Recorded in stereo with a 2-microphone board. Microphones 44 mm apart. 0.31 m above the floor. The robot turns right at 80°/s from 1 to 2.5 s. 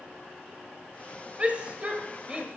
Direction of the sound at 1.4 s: 30° right (ahead or behind).